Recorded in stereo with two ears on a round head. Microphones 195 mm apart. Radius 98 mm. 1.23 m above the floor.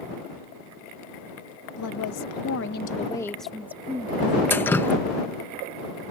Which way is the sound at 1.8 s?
80° left.